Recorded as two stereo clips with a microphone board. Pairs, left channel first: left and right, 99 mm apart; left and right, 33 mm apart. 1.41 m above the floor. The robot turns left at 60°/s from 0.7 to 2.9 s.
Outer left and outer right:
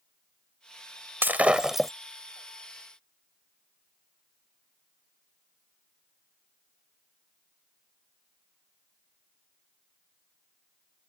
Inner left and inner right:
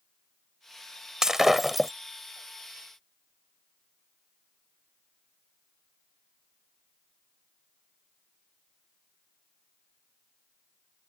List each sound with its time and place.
1.2 s breaking glass: 145° right; by 1.9 s 175° left